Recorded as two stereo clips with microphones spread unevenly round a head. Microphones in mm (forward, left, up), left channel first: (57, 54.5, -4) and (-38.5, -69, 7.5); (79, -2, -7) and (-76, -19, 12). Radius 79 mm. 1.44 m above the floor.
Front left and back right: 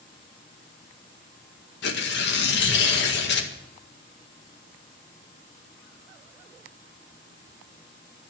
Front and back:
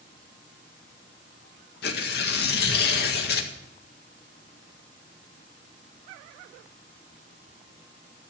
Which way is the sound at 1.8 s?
35° left.